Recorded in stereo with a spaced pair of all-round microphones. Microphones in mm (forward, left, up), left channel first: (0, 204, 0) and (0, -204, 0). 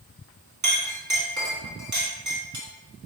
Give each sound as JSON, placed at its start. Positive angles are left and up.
{"t": 0.6, "sound": "a clink", "side_deg": -45, "distance_m": 1.1}